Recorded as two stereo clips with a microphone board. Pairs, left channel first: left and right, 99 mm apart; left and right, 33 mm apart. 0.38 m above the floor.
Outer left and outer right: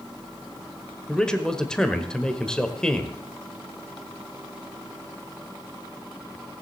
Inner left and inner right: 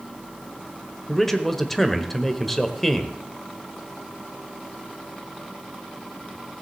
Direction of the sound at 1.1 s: 10° left (ahead or behind).